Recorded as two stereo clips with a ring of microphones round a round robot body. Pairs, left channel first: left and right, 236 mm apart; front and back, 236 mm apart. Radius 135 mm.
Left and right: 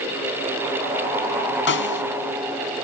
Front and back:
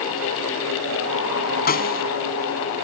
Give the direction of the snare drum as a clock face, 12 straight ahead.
10 o'clock.